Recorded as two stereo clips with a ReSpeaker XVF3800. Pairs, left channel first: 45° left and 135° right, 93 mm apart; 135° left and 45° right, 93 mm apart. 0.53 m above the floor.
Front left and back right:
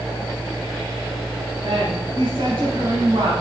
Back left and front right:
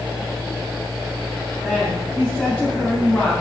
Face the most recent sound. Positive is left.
turn(degrees=-145)